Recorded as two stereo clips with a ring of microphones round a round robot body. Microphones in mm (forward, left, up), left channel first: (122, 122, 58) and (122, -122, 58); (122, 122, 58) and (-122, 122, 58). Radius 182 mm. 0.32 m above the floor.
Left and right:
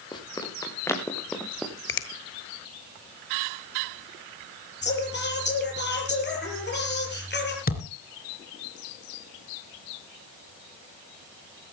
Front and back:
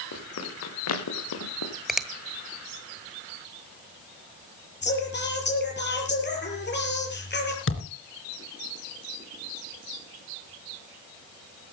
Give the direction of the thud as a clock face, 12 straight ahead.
11 o'clock.